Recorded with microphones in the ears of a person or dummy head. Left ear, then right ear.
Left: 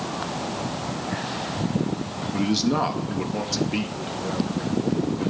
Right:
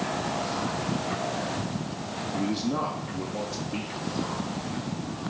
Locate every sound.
2.3 s a man speaking: 40° left (ahead or behind), 0.6 m